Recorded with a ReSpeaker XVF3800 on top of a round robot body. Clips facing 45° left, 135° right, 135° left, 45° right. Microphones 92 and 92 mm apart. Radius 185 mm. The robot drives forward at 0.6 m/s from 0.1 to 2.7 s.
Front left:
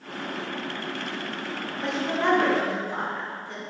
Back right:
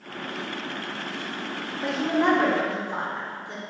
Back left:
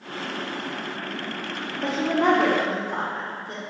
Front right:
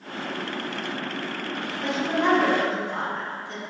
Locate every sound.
1.8 s a woman speaking: 140° left, 1.1 m; by 3.6 s 160° left, 1.4 m